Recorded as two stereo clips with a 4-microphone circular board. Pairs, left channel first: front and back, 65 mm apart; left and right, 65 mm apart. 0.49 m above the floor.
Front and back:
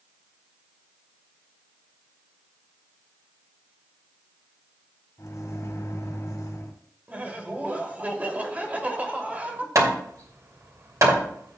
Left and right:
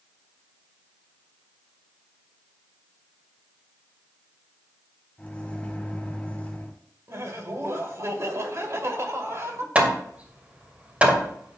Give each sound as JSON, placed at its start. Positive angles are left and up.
{"t": 5.2, "sound": "a microwave", "azimuth_deg": 20, "distance_m": 2.0}
{"t": 7.1, "sound": "laughter", "azimuth_deg": -115, "distance_m": 2.0}
{"t": 9.8, "sound": "hammering", "azimuth_deg": -155, "distance_m": 2.0}